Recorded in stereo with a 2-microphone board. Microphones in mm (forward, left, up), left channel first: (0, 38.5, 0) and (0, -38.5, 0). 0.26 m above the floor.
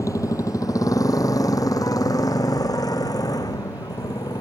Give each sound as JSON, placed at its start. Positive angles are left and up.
{"t": 0.0, "sound": "a motorcycle", "side_deg": 45}